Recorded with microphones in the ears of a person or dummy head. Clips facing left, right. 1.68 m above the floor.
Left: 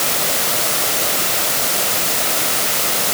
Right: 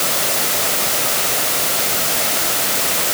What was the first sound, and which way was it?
Only background noise.